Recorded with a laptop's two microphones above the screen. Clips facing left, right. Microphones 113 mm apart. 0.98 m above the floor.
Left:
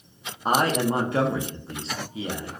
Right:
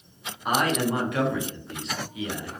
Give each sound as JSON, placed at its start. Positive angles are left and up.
{"t": 0.5, "sound": "a man speaking", "side_deg": 30, "distance_m": 0.5}